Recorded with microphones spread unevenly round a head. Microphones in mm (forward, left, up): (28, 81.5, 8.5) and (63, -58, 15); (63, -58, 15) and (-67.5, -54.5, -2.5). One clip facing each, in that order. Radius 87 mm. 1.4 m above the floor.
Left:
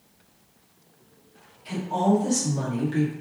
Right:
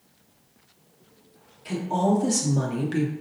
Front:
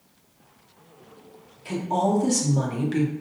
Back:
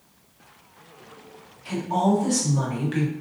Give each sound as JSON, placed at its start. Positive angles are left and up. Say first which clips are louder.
{"t": 1.6, "sound": "a woman speaking", "louder": "even, back 1 dB", "azimuth_deg": -40, "distance_m": 1.7}